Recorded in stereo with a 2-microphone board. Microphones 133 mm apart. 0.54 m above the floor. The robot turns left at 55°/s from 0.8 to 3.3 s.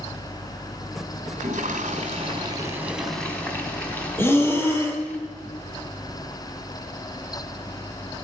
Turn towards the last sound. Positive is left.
turn(degrees=15)  # may be behind; listen again after turning